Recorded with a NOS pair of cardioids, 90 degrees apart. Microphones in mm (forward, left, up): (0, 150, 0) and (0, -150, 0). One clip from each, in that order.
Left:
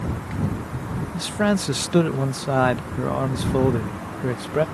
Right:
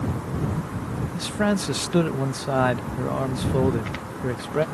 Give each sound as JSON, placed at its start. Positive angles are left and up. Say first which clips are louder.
{"t": 1.1, "sound": "a man speaking", "louder": "left 2 dB", "azimuth_deg": 15}